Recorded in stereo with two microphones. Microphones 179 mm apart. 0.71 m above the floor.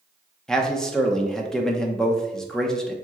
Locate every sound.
0.5 s a man speaking: 5° left (ahead or behind), 0.7 m